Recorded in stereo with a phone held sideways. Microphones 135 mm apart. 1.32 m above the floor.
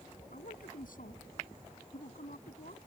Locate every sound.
0.3 s a man speaking: 85° left; by 2.8 s 90° left